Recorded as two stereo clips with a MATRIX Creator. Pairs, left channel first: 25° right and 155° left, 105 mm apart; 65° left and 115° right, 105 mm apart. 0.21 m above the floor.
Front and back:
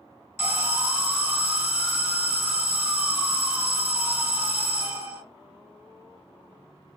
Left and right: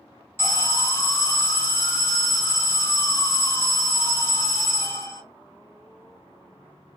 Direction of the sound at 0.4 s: 105° left.